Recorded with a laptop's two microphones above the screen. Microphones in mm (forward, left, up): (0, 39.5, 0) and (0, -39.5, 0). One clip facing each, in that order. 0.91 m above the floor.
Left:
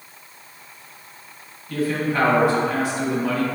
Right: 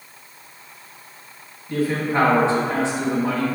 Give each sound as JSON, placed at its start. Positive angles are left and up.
{"t": 1.7, "sound": "a man speaking", "side_deg": -25, "distance_m": 1.0}